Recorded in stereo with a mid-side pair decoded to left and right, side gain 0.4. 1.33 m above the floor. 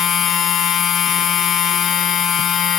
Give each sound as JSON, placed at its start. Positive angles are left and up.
{"t": 0.0, "sound": "a machine running", "azimuth_deg": 65, "distance_m": 0.9}